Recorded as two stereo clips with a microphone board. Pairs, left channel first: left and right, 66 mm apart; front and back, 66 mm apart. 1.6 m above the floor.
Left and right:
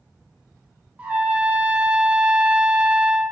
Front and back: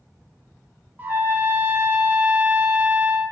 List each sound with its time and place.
1.0 s a trumpet: 140° right, 0.5 m